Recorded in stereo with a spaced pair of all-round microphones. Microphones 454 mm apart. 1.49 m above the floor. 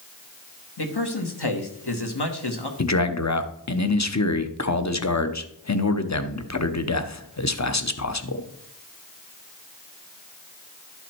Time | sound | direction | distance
0.8 | a man speaking | 60° left (ahead or behind) | 1.8 m
2.8 | a man speaking | 40° left (ahead or behind) | 0.9 m